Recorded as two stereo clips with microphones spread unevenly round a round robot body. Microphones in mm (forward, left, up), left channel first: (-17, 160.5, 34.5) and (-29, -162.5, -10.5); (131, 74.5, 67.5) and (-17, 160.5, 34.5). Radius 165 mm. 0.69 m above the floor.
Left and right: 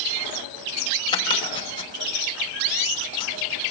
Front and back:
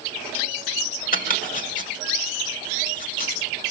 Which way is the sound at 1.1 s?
10° left.